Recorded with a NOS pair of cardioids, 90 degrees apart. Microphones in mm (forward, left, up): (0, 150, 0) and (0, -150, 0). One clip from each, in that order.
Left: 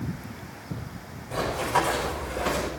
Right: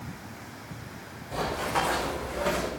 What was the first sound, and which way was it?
Running footsteps, 35° left.